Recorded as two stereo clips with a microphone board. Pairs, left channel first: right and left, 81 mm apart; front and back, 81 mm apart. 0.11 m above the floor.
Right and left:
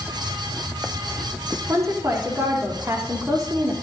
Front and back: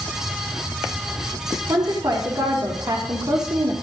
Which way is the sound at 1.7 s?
145° left.